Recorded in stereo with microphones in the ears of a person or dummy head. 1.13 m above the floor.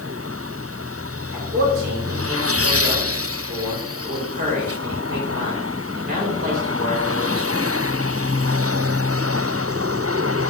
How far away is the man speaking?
About 3.5 m.